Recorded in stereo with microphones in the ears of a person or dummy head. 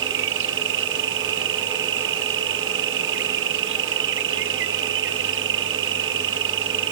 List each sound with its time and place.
0.0 s an insect: 60° right (ahead or behind)